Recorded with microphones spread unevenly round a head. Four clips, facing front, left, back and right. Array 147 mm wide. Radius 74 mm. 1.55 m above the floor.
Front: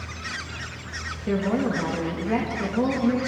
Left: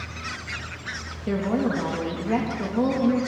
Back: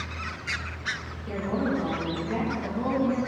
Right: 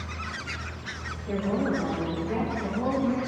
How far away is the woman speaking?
About 3 m.